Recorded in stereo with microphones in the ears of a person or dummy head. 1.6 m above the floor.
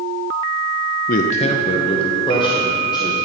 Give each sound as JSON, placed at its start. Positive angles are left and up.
{"t": 1.1, "sound": "a man speaking", "side_deg": 50, "distance_m": 0.5}